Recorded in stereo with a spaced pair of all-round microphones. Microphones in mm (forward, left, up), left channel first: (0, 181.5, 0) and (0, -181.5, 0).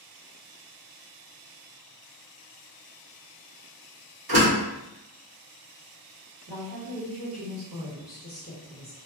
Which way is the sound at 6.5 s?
75° right (ahead or behind).